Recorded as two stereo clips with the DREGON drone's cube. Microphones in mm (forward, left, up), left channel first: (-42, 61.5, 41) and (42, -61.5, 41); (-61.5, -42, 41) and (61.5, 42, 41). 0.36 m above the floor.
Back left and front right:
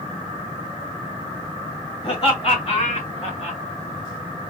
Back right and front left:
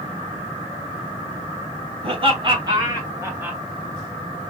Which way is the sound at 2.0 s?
80° left.